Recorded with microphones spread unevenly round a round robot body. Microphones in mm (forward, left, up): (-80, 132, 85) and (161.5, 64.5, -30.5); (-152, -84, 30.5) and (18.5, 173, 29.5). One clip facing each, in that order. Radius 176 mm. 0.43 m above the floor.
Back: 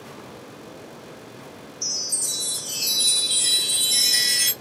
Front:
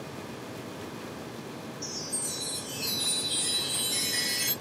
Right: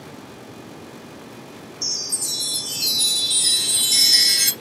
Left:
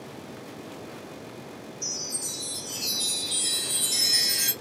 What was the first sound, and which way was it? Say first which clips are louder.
A chime: front 2 dB, right 2 dB; 145° right.